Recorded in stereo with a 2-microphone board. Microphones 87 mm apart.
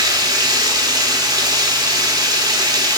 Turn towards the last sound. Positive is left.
turn(degrees=-45)  # may be behind; listen again after turning